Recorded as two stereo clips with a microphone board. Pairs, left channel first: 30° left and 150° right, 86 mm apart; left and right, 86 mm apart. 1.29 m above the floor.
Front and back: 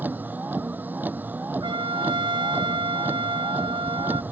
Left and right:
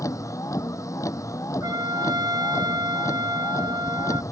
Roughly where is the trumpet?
Behind right.